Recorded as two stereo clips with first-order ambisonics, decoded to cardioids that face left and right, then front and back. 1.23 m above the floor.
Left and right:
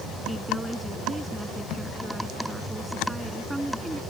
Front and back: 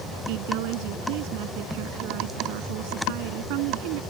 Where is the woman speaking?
175° right.